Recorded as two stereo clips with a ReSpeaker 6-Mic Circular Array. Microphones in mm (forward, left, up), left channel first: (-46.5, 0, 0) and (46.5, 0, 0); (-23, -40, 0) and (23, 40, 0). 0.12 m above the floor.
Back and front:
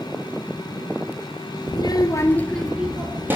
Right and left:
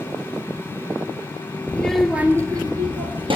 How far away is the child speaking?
About 1.3 m.